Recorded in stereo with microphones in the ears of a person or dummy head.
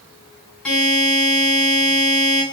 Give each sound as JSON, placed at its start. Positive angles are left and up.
{"t": 0.7, "sound": "a buzzer", "side_deg": 5, "distance_m": 2.0}